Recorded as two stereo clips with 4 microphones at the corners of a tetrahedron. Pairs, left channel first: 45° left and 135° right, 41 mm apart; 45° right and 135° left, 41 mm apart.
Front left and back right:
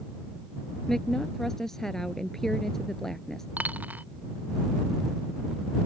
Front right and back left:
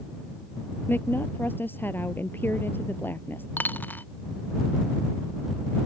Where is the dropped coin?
85° right.